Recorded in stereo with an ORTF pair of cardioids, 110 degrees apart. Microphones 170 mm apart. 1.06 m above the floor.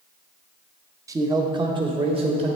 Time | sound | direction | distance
1.1 | a man speaking | 20° right | 0.6 m